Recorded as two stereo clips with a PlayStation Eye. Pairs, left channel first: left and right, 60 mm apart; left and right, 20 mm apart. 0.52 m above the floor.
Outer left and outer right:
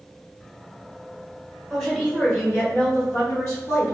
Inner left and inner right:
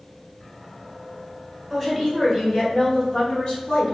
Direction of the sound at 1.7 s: 10° left (ahead or behind).